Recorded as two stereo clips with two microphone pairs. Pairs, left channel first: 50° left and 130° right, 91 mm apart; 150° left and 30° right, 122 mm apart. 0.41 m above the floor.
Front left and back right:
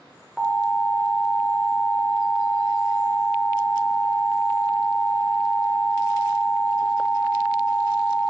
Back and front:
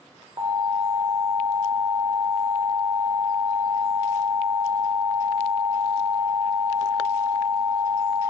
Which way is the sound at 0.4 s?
50° right.